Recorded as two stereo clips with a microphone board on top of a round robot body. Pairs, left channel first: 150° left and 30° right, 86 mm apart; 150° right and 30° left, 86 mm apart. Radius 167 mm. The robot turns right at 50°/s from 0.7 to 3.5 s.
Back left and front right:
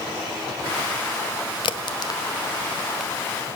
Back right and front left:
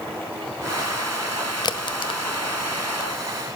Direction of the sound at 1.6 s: 170° left.